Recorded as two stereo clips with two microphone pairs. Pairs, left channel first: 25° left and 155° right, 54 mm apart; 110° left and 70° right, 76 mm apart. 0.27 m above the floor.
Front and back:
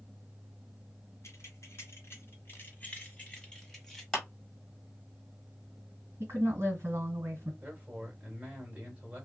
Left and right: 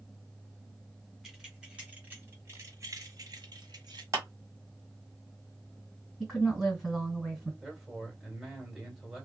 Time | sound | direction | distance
1.2 | keys jangling | 20° left | 1.4 m
4.1 | a clap | 60° right | 1.7 m
6.2 | a woman speaking | 155° right | 1.6 m
7.6 | a man speaking | 155° right | 1.7 m